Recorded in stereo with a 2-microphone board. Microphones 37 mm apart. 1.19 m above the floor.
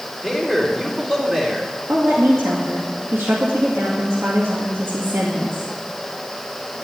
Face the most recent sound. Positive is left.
turn(degrees=-75)  # may be behind; listen again after turning